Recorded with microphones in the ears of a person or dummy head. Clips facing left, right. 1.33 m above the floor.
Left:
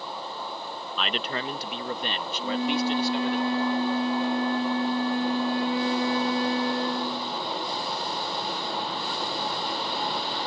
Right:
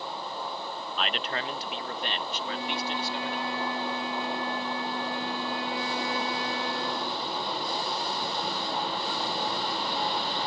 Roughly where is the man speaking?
Left.